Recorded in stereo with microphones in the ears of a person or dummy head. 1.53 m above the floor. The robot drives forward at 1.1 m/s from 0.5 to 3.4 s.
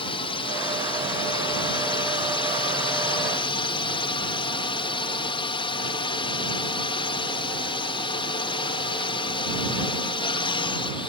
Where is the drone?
20° left (ahead or behind).